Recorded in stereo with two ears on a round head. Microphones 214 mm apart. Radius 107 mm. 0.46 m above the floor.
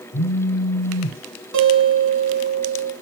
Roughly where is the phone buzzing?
Left.